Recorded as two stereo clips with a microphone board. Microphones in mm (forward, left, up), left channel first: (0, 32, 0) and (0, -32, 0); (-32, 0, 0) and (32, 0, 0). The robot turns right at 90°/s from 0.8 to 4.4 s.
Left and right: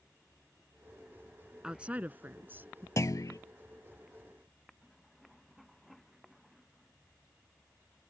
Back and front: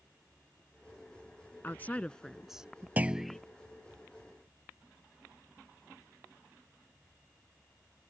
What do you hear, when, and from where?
1.6 s a woman speaking: 160° right; by 2.9 s 50° right
3.0 s a clunk: 60° left; by 3.4 s 100° left